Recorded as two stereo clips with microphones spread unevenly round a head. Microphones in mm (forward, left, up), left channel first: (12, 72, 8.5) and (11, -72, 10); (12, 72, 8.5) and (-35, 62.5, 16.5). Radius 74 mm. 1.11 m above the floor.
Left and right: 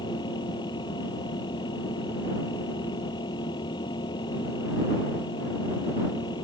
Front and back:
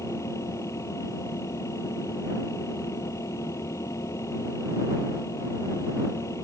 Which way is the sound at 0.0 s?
30° left.